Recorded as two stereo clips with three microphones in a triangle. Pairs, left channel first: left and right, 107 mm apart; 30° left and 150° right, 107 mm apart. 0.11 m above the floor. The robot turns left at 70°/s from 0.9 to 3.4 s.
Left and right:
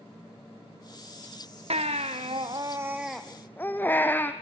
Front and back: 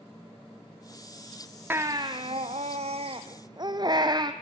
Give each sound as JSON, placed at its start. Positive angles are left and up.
{"t": 1.7, "sound": "a baby crying", "azimuth_deg": -80, "distance_m": 1.7}